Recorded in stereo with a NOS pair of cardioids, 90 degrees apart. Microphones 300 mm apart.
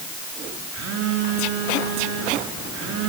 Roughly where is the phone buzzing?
Ahead right.